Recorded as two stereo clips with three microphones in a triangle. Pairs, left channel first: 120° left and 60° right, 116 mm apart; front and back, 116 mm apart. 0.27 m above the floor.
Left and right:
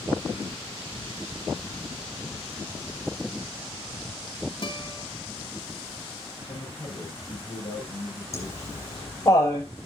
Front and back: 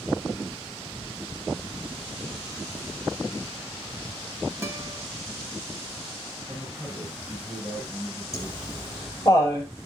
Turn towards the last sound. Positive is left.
turn(degrees=60)